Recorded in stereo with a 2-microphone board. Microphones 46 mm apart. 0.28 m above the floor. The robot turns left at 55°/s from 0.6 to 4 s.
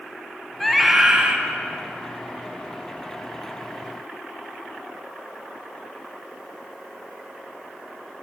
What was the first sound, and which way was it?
A scream, 10° left.